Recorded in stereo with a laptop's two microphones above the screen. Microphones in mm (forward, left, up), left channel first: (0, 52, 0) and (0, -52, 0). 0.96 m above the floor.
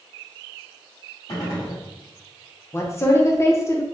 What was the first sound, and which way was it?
A gunshot, 40° left (ahead or behind).